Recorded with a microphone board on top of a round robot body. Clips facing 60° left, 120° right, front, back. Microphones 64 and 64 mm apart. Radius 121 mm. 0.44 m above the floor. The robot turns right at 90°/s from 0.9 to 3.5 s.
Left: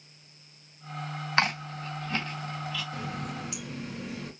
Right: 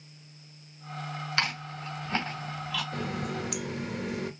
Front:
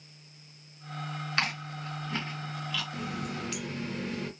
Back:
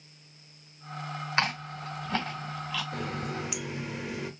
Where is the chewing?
115° left, 1.8 m; by 2.8 s 115° right, 1.8 m.